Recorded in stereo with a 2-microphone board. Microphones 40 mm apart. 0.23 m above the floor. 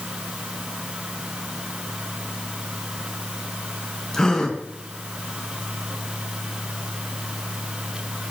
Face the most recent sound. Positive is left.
turn(degrees=10)  # may be behind; listen again after turning